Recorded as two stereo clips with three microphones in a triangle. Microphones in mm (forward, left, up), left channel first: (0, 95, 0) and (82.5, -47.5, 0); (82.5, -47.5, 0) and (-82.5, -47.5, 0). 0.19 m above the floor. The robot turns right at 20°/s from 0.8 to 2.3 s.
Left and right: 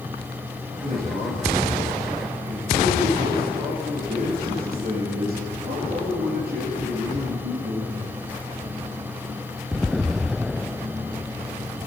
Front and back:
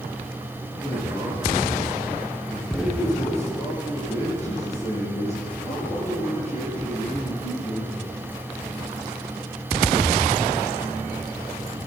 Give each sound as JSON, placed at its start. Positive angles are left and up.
{"t": 0.8, "sound": "a man speaking", "azimuth_deg": -75, "distance_m": 3.5}